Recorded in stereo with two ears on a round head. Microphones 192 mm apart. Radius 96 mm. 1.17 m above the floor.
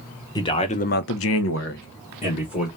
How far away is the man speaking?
About 1.1 m.